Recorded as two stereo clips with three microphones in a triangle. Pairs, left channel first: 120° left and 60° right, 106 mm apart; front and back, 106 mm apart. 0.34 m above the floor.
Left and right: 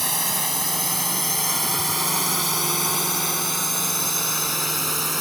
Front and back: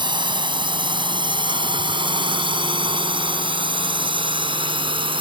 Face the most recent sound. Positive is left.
turn(degrees=-150)